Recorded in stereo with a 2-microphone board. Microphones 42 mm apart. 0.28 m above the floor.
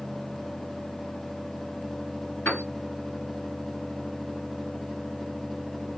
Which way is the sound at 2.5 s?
50° left (ahead or behind).